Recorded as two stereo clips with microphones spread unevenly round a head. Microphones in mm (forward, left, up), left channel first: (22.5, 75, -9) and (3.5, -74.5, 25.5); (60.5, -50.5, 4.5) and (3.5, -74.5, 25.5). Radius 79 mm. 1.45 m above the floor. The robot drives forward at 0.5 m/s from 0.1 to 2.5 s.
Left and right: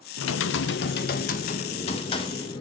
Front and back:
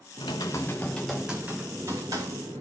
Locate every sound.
0.2 s typing on a keyboard: 85° left, 0.8 m; by 2.6 s 150° left, 1.4 m